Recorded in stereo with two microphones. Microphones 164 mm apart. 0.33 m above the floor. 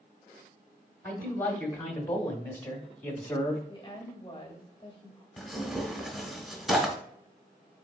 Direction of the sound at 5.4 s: Centre (ahead or behind).